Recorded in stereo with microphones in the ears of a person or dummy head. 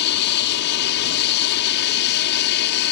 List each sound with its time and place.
0.0 s an aircraft: 55° left (ahead or behind)